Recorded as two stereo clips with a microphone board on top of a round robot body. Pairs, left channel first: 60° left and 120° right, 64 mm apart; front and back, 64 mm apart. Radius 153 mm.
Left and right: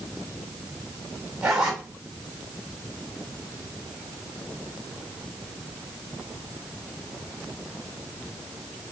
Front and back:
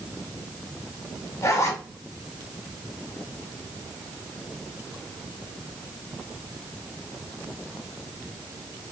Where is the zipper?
45° right, 0.5 m.